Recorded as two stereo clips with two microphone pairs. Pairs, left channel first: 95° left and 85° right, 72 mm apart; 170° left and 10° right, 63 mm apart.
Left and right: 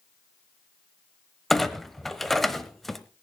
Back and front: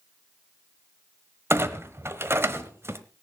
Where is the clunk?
10° left, 1.1 m.